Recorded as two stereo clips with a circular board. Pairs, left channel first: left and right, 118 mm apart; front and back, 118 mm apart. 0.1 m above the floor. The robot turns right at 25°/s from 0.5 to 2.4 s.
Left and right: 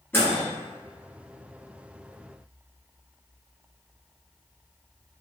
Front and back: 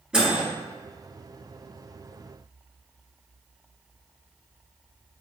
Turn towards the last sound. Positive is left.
turn(degrees=160)